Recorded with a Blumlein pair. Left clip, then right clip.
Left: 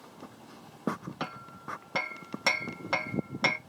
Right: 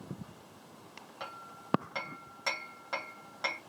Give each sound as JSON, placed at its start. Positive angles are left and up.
{"t": 1.2, "sound": "hammering", "azimuth_deg": 25, "distance_m": 0.9}